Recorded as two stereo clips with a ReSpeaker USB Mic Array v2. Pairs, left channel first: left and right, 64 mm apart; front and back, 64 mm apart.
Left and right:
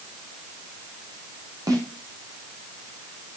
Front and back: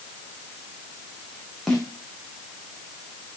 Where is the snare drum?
85° right, 7 m.